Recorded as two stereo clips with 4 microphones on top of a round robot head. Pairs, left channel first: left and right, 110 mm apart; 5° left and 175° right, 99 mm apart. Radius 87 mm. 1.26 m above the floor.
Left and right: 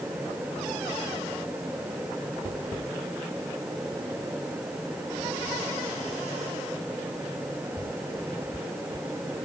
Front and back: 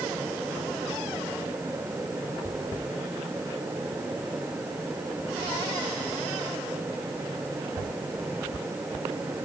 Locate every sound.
Only background noise.